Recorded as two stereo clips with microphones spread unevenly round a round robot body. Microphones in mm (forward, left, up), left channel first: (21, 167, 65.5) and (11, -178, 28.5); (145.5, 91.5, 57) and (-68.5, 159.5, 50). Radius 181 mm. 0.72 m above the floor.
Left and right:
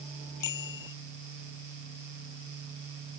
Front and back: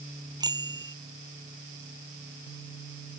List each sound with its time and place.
0.4 s a bicycle bell: 90° left